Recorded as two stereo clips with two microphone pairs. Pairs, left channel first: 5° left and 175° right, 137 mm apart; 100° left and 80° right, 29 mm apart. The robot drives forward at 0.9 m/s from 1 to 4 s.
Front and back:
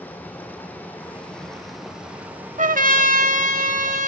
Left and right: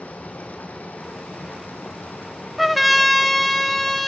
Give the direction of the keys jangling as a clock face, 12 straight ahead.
No keys jangling in this recording.